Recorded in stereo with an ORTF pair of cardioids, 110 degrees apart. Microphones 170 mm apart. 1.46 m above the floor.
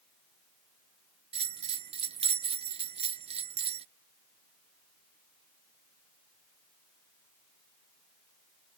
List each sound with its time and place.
1.3 s a bell: 35° right